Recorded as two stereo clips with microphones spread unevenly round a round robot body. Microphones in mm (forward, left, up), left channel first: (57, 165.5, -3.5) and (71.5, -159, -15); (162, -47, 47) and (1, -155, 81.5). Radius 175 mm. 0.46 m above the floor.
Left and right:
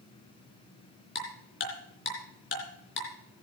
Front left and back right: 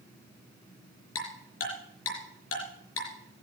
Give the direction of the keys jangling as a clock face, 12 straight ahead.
No keys jangling in this recording.